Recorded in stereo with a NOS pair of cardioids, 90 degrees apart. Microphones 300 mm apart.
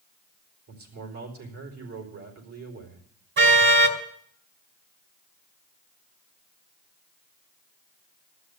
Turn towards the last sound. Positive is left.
turn(degrees=-40)